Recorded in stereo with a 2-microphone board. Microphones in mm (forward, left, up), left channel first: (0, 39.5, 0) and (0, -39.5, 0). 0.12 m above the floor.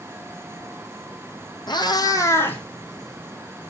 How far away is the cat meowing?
About 1.8 m.